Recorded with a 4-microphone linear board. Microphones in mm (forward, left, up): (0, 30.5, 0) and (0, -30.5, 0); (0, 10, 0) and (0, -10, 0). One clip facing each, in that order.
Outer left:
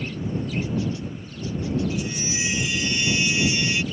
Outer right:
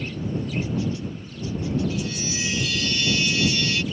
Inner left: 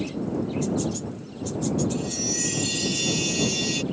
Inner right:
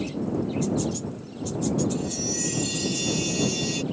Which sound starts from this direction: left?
A chime, at 1.9 s.